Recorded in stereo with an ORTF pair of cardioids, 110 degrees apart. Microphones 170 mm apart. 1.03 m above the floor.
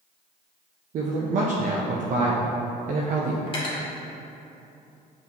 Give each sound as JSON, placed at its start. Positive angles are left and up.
{"t": 0.9, "sound": "a man speaking", "azimuth_deg": -55, "distance_m": 0.6}
{"t": 3.5, "sound": "cutlery clinking", "azimuth_deg": 35, "distance_m": 1.0}